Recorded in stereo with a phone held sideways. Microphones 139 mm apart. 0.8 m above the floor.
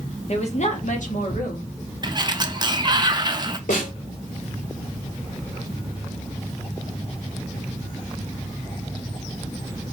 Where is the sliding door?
30° right (ahead or behind), 0.7 m.